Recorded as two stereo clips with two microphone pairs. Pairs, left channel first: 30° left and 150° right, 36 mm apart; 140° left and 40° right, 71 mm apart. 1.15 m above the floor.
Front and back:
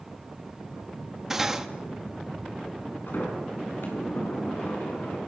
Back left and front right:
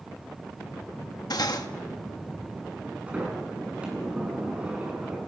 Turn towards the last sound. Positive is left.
turn(degrees=35)